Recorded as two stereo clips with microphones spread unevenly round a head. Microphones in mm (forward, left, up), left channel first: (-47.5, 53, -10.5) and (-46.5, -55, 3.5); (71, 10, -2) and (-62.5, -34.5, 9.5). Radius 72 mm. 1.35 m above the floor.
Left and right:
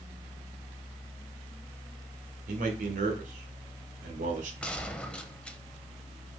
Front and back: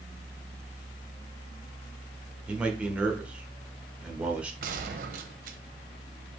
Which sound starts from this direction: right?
A man speaking, at 2.5 s.